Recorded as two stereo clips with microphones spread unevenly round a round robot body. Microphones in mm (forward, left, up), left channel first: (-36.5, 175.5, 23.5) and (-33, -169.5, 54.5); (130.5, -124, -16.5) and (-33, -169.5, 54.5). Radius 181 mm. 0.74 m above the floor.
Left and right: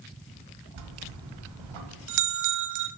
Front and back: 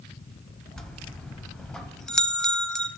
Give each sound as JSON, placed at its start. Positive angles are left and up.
{"t": 0.8, "sound": "a bell", "azimuth_deg": -80, "distance_m": 1.1}